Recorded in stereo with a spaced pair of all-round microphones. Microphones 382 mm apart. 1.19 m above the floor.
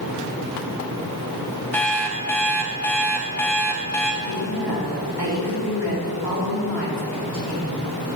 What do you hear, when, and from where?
1.7 s an alarm clock: 5° left (ahead or behind), 1.4 m
4.2 s a woman speaking: 80° right, 3 m